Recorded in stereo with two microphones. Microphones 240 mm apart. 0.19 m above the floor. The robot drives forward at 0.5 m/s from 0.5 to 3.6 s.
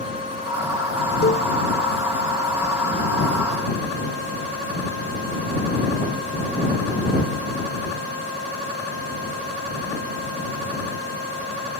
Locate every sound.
1.2 s a cowbell: 45° left (ahead or behind); by 1.5 s 40° left (ahead or behind)